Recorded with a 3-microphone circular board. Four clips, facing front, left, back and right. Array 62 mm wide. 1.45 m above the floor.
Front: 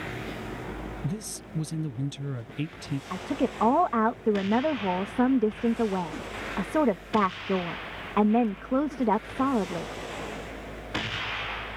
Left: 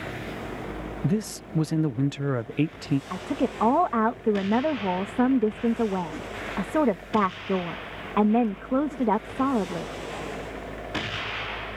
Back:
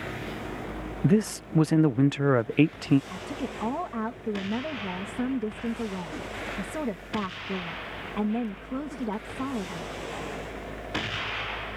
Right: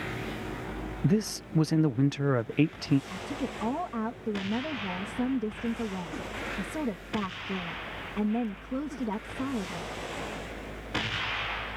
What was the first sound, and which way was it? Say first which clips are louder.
A man speaking: even, back 12 dB; 175° right.